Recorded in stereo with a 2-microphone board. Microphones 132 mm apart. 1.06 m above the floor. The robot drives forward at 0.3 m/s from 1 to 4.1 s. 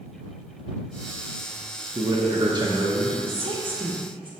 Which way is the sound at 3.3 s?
45° right (ahead or behind).